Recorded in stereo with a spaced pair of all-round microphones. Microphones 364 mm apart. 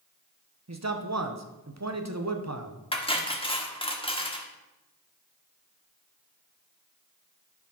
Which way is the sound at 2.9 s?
15° left (ahead or behind).